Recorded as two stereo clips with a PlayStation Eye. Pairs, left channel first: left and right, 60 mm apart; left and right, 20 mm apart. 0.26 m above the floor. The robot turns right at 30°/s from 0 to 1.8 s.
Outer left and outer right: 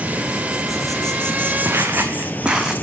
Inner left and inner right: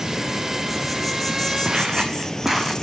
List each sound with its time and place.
0.0 s an insect: 25° right, 0.7 m; by 2.8 s 30° left, 0.7 m
1.6 s footsteps: 40° right (ahead or behind), 1.3 m; by 2.7 s 5° right (ahead or behind), 1.0 m